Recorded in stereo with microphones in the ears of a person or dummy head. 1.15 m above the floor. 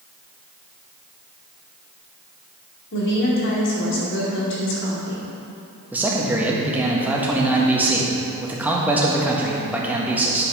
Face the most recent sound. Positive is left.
turn(degrees=-5)  # may be behind; listen again after turning